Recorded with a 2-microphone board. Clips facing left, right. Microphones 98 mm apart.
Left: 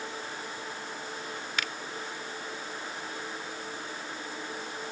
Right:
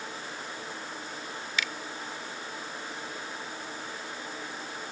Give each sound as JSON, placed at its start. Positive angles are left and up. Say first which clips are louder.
{"t": 1.6, "sound": "a finger snap", "louder": "right 1 dB", "side_deg": 55}